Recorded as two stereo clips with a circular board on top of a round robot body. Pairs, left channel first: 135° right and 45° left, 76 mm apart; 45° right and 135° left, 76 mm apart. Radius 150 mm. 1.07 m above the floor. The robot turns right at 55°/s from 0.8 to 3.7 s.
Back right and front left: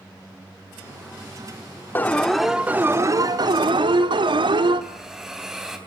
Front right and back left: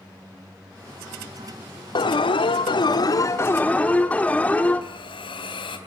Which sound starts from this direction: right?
An alarm, at 1.9 s.